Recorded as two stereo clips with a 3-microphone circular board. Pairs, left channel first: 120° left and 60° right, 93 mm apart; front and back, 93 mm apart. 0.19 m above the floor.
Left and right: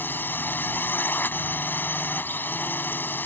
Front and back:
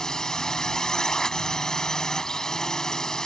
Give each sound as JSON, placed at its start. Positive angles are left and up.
{"t": 0.0, "sound": "a drone", "azimuth_deg": 75}